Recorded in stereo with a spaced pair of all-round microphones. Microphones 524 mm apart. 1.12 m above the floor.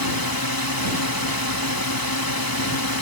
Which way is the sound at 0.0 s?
40° left (ahead or behind).